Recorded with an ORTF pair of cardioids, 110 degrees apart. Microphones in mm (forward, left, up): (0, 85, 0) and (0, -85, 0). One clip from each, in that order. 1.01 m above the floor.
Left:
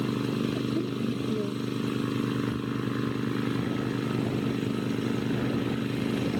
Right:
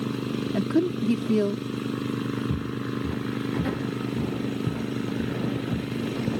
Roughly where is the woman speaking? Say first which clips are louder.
Right 6 dB; ahead right.